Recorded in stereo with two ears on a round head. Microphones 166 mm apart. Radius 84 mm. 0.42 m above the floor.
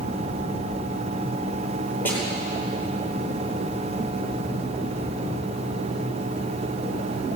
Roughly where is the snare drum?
Centre.